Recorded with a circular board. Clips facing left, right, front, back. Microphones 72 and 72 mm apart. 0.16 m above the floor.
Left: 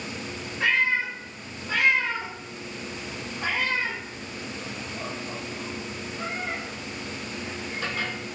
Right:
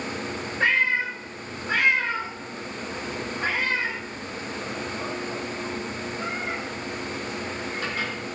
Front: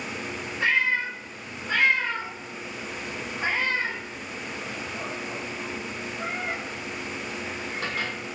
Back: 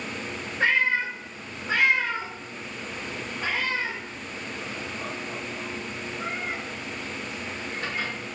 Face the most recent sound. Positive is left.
turn(degrees=-10)